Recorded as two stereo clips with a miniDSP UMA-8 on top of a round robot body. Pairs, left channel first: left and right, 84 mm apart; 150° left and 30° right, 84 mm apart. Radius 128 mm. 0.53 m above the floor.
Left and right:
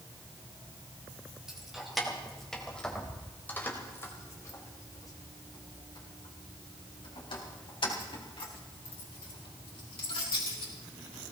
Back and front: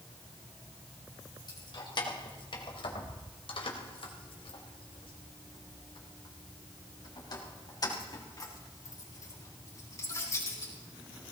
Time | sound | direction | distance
1.5 | keys jangling | 175° right | 3 m